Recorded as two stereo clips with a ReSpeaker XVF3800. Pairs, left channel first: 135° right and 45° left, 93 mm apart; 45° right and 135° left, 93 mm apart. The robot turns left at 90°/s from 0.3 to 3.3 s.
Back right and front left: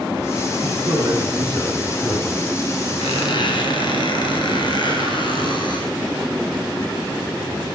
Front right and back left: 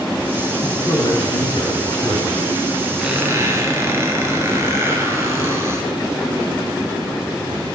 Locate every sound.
0.6 s a man speaking: 30° left, 2.5 m; by 2.3 s 120° right, 2.5 m
3.0 s a squeak: 135° right, 3 m; by 5.9 s 165° right, 3 m